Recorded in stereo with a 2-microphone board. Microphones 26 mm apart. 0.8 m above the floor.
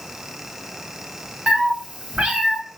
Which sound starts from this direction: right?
A cat meowing, at 1.5 s.